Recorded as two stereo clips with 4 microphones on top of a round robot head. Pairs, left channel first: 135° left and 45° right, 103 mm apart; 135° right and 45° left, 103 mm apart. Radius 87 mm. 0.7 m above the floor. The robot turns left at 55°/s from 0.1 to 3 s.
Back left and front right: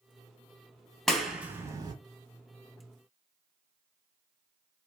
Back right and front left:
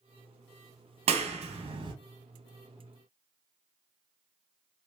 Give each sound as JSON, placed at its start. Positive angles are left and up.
{"t": 1.1, "sound": "a clap", "azimuth_deg": 50, "distance_m": 0.8}